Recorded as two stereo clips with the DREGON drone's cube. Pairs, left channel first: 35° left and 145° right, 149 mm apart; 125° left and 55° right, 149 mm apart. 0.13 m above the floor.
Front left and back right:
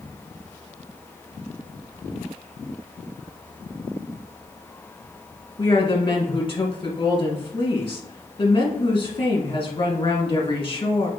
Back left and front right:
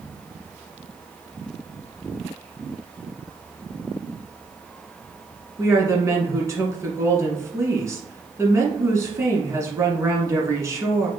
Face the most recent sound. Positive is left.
turn(degrees=5)